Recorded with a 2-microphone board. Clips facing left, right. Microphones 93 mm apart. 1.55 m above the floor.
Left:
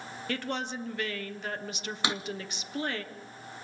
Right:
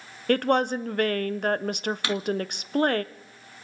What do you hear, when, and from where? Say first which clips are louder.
0.3 s a woman speaking: right 12 dB; 55° right (ahead or behind), 0.8 m
2.0 s a drawer: right 2 dB; 20° left (ahead or behind), 0.9 m